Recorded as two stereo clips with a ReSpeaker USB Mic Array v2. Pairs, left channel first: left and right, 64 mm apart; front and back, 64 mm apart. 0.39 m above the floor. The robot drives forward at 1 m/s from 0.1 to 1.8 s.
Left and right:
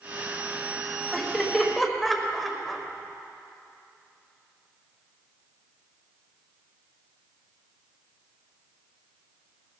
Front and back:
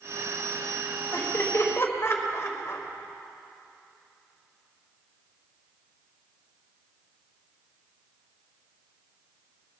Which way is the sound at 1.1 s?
5° left.